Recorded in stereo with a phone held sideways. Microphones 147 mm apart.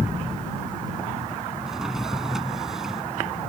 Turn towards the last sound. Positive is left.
turn(degrees=-5)  # may be behind; listen again after turning